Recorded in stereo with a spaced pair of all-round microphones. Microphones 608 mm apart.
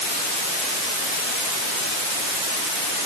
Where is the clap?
I don't hear a clap.